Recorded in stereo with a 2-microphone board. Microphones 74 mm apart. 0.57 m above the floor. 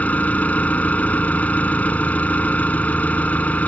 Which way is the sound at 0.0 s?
20° left (ahead or behind).